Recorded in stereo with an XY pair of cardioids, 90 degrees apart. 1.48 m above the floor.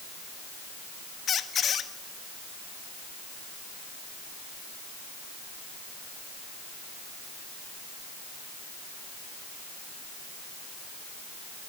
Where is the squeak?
60° left, 1.6 m.